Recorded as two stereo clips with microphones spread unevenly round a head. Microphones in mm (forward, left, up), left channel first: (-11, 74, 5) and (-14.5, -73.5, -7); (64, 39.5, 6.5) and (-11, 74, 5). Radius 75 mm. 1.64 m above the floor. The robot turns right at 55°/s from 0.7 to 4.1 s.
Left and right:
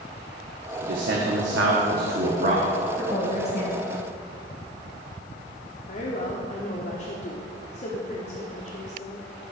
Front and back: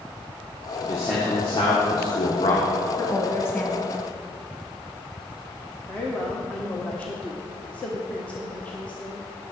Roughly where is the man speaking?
Behind right.